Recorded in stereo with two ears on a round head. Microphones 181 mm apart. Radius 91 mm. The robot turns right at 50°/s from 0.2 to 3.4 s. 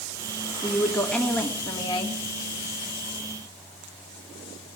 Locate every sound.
0.6 s a woman speaking: 15° right, 1.2 m; by 2.2 s 65° left, 1.2 m